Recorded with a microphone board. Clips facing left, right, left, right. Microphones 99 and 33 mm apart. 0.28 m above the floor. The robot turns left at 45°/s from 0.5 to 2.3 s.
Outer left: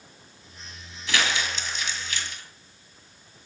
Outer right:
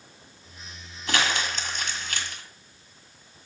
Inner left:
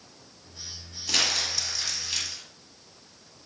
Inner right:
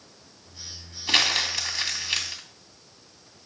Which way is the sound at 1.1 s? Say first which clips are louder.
Outer right 1 dB, inner right 4 dB; 50° right (ahead or behind).